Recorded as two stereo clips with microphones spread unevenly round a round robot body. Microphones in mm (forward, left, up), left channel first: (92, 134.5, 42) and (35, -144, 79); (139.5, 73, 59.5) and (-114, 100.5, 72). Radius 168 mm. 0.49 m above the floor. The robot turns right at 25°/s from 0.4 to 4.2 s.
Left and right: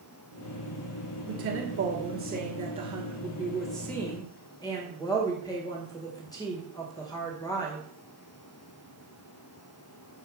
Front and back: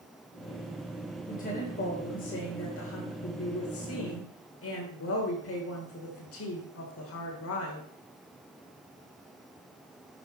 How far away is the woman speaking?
About 2.5 m.